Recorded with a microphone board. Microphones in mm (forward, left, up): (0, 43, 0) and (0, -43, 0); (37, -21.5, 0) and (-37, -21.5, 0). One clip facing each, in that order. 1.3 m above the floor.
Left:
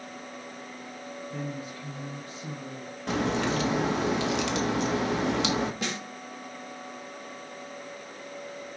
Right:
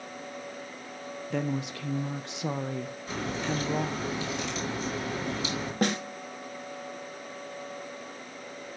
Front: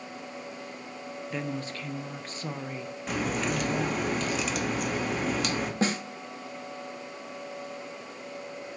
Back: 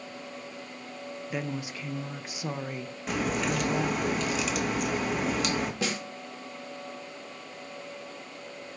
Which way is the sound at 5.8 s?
50° right.